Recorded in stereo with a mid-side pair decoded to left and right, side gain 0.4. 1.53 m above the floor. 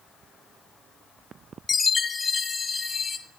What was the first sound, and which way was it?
A chime, 40° left.